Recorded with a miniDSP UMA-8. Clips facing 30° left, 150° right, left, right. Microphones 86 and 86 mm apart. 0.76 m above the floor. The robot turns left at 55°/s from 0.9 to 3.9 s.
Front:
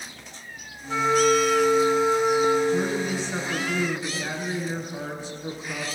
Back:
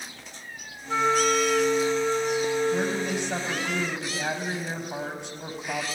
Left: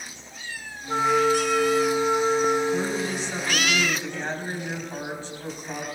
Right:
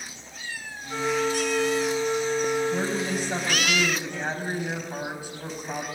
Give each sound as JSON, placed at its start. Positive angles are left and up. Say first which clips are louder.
{"t": 0.9, "sound": "a flute", "louder": "front 3 dB, left 5 dB", "azimuth_deg": 135, "distance_m": 1.8}
{"t": 2.7, "sound": "a woman speaking", "louder": "front 1 dB, left 1 dB", "azimuth_deg": -105, "distance_m": 4.5}